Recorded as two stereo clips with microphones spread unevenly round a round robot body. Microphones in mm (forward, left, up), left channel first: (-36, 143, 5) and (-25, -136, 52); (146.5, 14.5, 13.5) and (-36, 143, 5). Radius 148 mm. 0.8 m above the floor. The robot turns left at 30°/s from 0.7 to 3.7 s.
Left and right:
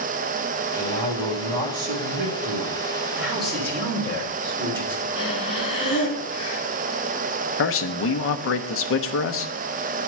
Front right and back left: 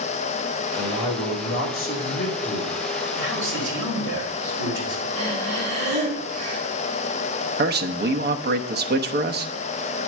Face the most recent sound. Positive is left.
turn(degrees=110)